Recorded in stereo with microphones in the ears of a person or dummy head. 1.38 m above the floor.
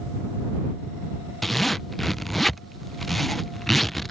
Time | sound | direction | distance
1.4 | a zipper | centre (ahead or behind) | ?